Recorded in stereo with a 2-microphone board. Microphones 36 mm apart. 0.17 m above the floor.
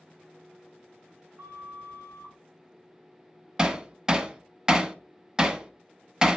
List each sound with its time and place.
1.4 s a flute: 65° right (ahead or behind), 5 m
3.6 s hammering: 20° right (ahead or behind), 0.6 m